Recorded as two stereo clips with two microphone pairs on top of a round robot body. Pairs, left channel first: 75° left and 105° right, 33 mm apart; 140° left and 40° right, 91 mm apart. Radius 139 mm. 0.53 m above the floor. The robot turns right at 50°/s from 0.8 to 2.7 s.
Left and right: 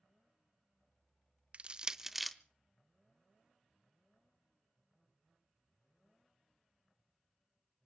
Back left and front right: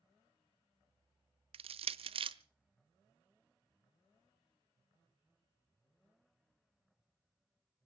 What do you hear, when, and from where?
1.5 s crushing: 55° right, 0.5 m; by 2.4 s 10° right, 0.5 m